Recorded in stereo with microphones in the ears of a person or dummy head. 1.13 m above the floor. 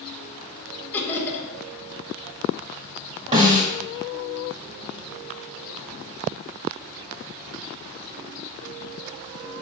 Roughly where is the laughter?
Centre.